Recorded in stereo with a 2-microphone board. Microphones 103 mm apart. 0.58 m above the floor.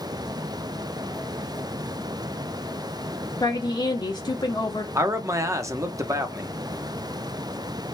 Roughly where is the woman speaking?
Left.